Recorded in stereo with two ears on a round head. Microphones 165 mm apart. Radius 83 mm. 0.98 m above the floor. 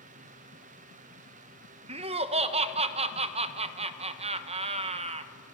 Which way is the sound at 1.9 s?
30° right (ahead or behind).